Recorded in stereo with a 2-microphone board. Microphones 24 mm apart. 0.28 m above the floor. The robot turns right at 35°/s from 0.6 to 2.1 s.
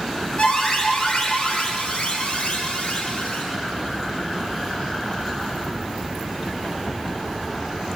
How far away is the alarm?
About 7.5 m.